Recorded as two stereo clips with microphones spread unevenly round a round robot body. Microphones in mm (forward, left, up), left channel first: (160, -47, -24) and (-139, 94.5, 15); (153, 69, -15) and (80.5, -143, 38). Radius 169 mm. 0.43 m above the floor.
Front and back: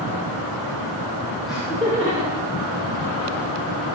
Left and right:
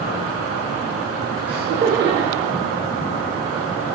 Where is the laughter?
105° right, 1.6 m; by 3.3 s 160° right, 3 m.